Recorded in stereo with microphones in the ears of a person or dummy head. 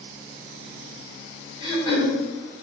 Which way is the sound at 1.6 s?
30° left (ahead or behind).